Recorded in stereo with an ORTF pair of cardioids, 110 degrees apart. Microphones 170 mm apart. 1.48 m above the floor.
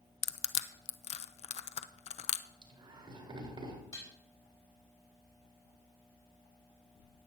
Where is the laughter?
30° right, 4.5 m.